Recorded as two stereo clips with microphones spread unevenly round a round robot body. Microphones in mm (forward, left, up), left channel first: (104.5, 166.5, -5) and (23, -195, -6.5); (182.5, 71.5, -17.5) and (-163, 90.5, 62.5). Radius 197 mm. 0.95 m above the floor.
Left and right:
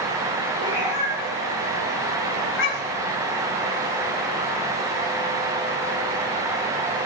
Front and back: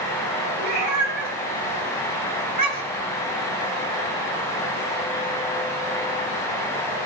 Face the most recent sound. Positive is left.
turn(degrees=125)